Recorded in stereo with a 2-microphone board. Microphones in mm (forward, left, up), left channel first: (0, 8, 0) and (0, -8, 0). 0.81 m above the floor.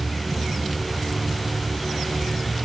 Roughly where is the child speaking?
I don't hear a child speaking.